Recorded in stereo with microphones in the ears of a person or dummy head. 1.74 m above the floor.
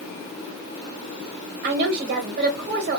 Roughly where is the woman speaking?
Right.